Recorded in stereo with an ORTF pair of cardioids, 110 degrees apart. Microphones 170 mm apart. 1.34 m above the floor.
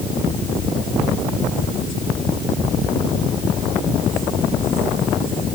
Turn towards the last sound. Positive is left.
No sound to turn to.